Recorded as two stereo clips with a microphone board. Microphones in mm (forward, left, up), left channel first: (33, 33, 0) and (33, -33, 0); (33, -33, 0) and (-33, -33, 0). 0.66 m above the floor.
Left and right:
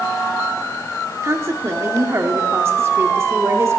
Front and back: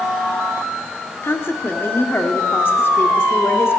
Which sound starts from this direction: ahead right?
A woman speaking, at 1.2 s.